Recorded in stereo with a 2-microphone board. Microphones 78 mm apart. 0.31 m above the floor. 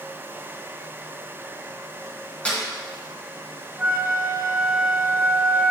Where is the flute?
10° right (ahead or behind), 2 m.